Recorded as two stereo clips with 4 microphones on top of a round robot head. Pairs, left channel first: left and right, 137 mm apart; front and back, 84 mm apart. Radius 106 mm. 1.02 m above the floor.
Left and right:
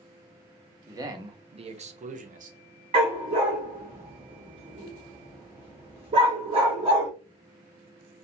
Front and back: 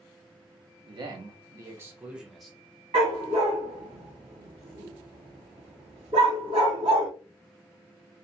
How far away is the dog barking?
About 0.7 m.